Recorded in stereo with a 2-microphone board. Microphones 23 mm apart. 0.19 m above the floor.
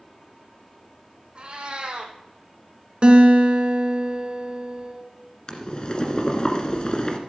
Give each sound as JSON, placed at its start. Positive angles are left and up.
{"t": 1.4, "sound": "a cat meowing", "side_deg": -50, "distance_m": 2.0}
{"t": 3.0, "sound": "a guitar", "side_deg": -45, "distance_m": 2.0}
{"t": 5.5, "sound": "boiling", "side_deg": 35, "distance_m": 1.5}